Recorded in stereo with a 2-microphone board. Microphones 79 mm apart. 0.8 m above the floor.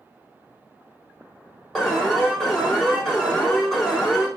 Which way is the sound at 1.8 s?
5° right (ahead or behind).